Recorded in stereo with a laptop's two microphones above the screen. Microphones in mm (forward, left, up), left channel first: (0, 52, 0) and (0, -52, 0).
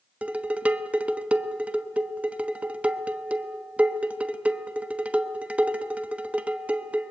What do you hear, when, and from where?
0.2 s dishes clattering: 15° right (ahead or behind), 1.0 m